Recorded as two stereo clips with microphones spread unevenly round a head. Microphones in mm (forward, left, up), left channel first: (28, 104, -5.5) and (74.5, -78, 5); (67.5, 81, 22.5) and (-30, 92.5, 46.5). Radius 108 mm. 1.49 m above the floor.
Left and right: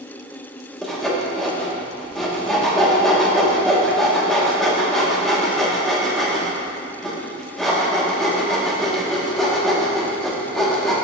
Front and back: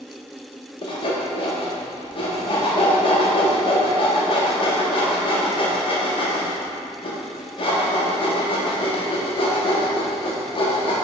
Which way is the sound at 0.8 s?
15° left.